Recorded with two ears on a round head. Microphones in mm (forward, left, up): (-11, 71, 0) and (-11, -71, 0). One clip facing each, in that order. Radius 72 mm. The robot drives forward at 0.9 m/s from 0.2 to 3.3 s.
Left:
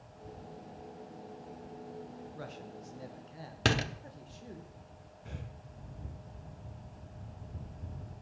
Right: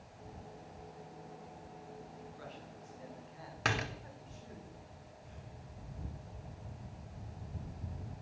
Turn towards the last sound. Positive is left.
turn(degrees=70)  # may be behind; listen again after turning